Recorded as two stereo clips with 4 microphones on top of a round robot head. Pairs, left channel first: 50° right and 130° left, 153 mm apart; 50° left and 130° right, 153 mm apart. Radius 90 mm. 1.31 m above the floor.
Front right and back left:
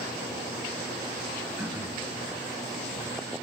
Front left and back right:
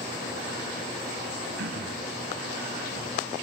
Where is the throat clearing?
145° right, 6 m.